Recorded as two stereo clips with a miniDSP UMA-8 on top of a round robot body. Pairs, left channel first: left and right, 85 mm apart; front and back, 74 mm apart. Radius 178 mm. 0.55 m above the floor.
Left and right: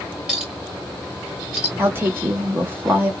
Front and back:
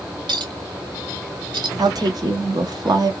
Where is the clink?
175° right, 1.9 m.